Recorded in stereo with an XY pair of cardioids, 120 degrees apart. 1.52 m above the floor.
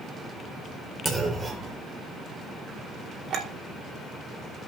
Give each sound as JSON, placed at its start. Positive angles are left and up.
{"t": 1.1, "sound": "a clunk", "azimuth_deg": -20, "distance_m": 3.0}
{"t": 3.3, "sound": "a clink", "azimuth_deg": -55, "distance_m": 2.5}